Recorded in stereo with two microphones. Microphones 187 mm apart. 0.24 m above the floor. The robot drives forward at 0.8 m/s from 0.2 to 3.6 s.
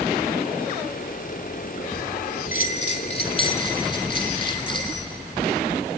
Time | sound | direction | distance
2.5 | a bell | 50° left (ahead or behind) | 0.8 m